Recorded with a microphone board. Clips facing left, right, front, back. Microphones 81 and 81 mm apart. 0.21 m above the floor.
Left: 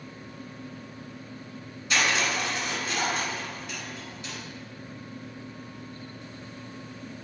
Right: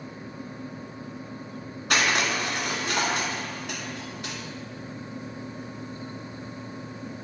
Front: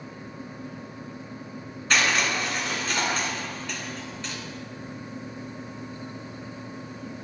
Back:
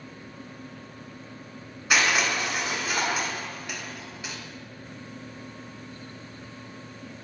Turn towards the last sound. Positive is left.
turn(degrees=-100)